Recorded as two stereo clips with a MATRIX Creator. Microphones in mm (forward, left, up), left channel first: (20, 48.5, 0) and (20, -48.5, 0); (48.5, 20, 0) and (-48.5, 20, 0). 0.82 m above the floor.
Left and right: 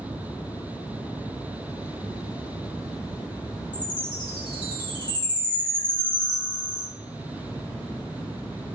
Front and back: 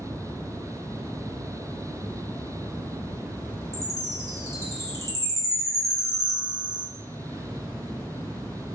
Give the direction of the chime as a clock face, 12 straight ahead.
8 o'clock.